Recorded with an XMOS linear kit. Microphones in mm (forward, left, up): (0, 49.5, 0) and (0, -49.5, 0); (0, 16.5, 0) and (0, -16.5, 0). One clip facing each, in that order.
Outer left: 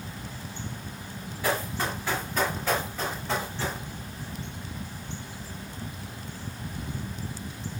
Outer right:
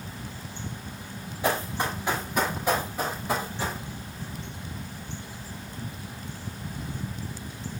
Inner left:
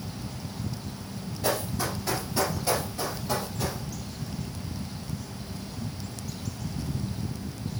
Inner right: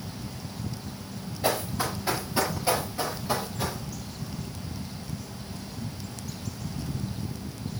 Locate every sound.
1.4 s running footsteps: 20° right (ahead or behind), 6 m; by 3.8 s 10° right (ahead or behind), 4.5 m